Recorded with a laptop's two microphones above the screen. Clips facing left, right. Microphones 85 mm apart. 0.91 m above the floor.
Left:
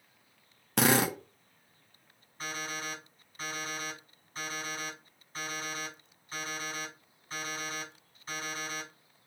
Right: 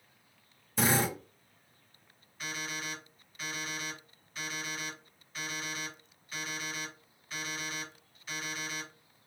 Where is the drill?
70° left (ahead or behind), 0.6 m.